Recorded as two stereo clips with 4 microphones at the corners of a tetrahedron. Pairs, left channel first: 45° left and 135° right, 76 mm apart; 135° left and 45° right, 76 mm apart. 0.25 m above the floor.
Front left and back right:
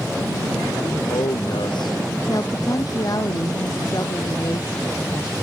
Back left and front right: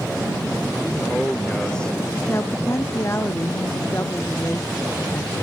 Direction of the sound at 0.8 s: 55° left.